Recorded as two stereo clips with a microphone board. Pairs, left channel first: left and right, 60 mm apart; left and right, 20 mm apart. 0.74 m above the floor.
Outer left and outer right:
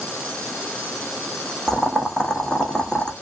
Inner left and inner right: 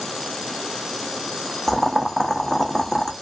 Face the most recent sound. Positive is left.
turn(degrees=10)  # may be behind; listen again after turning